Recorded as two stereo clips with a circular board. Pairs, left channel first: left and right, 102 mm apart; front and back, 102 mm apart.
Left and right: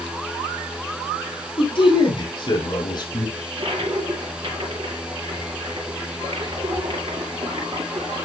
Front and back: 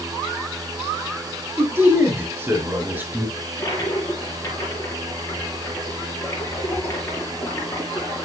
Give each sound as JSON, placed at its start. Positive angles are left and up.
{"t": 1.6, "sound": "a man speaking", "azimuth_deg": 115, "distance_m": 3.5}
{"t": 3.4, "sound": "a toilet flushing", "azimuth_deg": -60, "distance_m": 4.5}